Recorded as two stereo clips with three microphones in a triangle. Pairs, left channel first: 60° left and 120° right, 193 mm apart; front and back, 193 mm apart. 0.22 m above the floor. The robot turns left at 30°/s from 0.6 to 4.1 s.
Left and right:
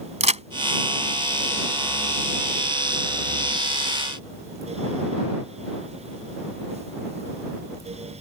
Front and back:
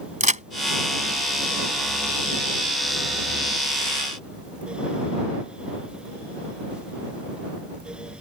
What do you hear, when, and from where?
0.2 s a crack: 155° right